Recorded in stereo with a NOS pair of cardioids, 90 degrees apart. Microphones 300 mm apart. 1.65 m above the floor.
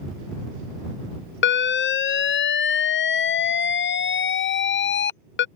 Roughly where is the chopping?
I don't hear chopping.